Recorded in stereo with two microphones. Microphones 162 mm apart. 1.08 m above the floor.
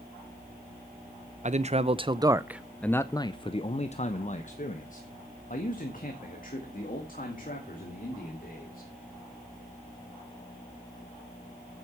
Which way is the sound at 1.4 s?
45° right (ahead or behind).